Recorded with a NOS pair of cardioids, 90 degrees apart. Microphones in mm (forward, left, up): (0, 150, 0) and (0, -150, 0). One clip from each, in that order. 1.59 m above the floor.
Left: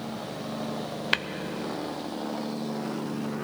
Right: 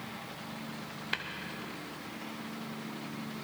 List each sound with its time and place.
1.1 s tapping: 40° left, 0.6 m